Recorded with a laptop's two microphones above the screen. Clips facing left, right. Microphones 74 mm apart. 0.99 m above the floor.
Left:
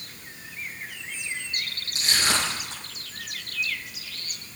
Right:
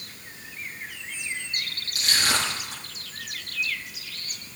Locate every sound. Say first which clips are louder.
1.9 s crushing: even; 25° left (ahead or behind), 7.5 m